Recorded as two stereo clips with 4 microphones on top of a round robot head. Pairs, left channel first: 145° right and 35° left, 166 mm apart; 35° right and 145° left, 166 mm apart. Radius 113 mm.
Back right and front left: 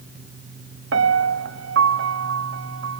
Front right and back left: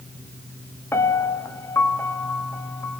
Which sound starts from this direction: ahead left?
A piano, at 0.9 s.